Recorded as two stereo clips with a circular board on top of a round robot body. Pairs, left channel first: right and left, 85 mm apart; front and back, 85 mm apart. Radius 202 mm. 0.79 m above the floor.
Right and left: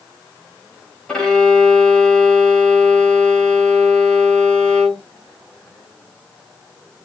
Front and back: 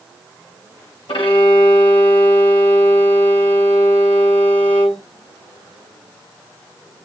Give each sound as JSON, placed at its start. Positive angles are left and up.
{"t": 1.1, "sound": "a violin", "azimuth_deg": -10, "distance_m": 1.0}